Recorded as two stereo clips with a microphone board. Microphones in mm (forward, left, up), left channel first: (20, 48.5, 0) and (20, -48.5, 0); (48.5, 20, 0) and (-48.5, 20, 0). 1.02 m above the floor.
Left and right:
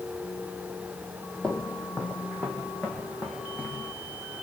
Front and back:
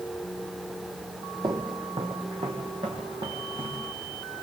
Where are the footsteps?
165° left, 1.8 m.